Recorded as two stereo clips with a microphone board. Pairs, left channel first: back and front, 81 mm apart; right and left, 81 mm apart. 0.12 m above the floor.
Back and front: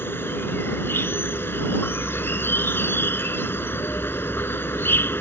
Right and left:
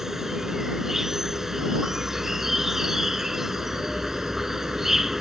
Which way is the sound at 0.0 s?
170° left.